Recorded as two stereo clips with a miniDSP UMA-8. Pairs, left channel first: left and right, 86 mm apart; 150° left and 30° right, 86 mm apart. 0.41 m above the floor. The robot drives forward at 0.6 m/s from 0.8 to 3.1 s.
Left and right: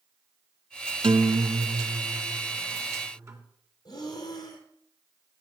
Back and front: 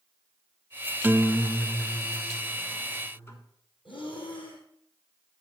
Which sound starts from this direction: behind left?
Breathing, at 3.9 s.